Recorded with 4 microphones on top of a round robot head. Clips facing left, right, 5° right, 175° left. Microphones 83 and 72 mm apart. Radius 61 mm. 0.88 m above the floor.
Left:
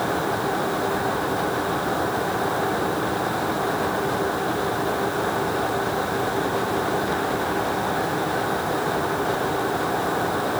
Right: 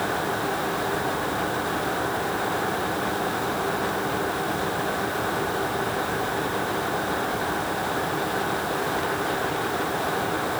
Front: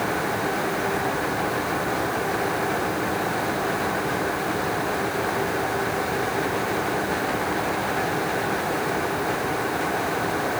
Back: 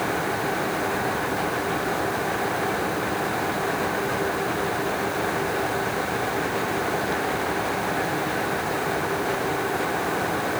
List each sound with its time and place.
Only background noise.